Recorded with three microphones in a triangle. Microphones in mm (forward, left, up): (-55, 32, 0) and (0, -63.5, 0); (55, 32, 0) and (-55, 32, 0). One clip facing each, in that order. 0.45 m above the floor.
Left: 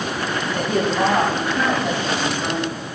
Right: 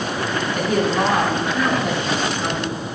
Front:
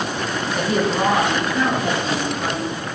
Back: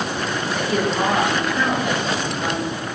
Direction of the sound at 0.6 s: 60° right.